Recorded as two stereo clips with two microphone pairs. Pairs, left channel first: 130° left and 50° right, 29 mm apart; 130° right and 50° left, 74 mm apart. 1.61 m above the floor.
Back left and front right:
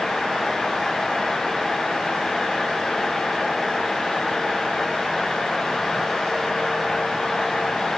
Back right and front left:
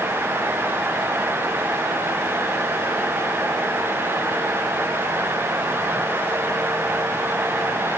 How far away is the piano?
I don't hear a piano.